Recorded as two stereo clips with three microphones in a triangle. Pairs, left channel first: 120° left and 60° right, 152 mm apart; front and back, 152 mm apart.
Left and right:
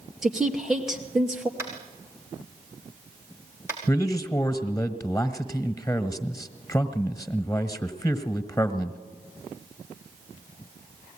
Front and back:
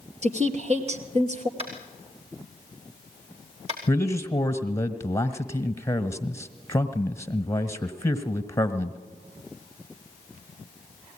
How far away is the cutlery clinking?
No cutlery clinking in this recording.